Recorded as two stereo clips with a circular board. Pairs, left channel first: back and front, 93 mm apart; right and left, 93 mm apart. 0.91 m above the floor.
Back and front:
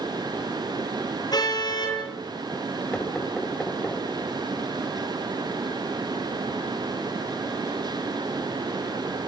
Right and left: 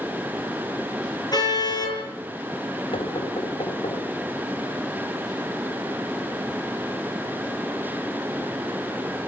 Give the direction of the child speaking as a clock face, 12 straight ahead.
I don't hear a child speaking.